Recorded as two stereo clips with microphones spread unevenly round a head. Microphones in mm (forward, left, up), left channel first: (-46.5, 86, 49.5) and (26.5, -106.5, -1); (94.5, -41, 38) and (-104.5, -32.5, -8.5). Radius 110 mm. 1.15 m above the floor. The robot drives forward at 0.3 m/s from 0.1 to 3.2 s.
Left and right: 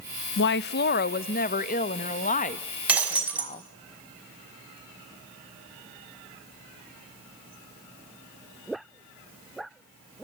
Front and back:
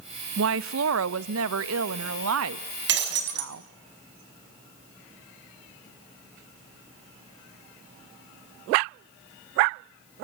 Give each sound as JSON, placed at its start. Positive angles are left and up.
{"t": 0.4, "sound": "a woman speaking", "azimuth_deg": 145, "distance_m": 0.5}
{"t": 2.9, "sound": "breaking glass", "azimuth_deg": -155, "distance_m": 5.0}